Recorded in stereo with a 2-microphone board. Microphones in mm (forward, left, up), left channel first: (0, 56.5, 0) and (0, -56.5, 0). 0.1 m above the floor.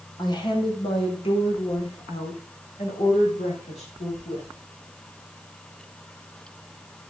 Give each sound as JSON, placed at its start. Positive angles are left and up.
{"t": 0.2, "sound": "a woman speaking", "side_deg": 35, "distance_m": 4.0}